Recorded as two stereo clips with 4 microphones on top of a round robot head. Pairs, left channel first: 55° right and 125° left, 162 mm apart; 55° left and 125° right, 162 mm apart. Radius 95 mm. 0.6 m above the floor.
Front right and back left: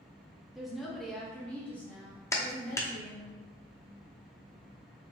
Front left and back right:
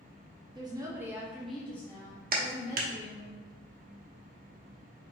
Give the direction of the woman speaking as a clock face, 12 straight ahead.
5 o'clock.